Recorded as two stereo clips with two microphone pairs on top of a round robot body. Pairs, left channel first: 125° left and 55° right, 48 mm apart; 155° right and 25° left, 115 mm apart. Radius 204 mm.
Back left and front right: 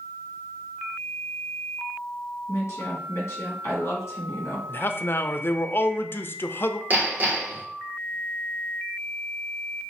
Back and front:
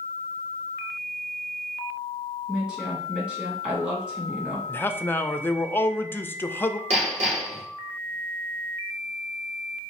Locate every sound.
2.5 s a woman speaking: 110° left, 2 m
4.7 s a man speaking: 140° left, 0.6 m
6.9 s hammering: 5° right, 1.3 m